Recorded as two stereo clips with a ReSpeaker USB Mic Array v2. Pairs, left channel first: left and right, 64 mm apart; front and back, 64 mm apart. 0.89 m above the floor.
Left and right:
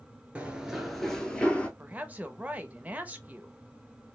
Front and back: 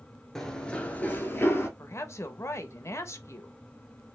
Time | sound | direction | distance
0.3 | running footsteps | 70° right | 0.8 m
1.8 | a woman speaking | 30° right | 0.8 m